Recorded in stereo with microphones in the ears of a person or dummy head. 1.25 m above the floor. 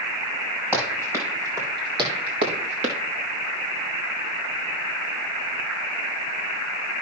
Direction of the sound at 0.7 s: 15° right (ahead or behind).